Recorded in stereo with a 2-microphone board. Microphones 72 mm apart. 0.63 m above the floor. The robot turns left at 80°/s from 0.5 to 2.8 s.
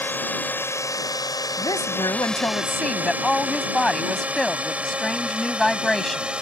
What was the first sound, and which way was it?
A drone, 25° left (ahead or behind).